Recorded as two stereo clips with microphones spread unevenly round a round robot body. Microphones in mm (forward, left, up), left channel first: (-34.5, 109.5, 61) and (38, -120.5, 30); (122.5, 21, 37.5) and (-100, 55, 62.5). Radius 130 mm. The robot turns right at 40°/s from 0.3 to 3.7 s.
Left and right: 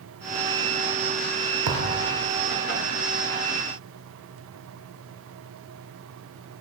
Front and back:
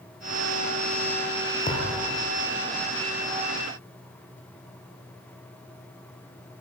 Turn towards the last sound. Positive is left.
turn(degrees=10)